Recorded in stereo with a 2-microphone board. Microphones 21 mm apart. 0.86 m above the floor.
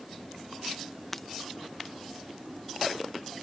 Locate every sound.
1.1 s breaking glass: 15° left (ahead or behind)